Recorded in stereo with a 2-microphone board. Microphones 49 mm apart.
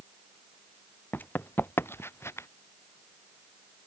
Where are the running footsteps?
45° left (ahead or behind); by 2.5 s 65° left (ahead or behind).